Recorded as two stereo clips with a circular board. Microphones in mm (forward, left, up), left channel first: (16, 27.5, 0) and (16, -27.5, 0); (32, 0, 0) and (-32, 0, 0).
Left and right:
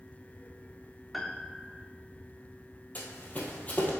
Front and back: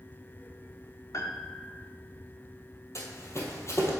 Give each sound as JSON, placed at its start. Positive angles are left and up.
{"t": 1.1, "sound": "a piano", "azimuth_deg": 0, "distance_m": 0.7}
{"t": 3.0, "sound": "running footsteps", "azimuth_deg": 35, "distance_m": 1.8}